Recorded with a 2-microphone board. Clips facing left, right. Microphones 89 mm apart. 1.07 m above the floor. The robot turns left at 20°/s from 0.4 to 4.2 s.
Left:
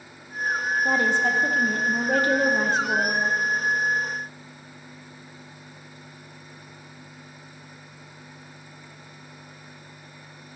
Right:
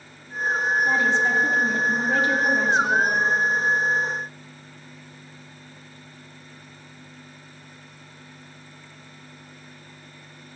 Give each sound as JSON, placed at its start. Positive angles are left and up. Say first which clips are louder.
{"t": 0.8, "sound": "a woman speaking", "louder": "left 1 dB", "azimuth_deg": 105, "distance_m": 1.1}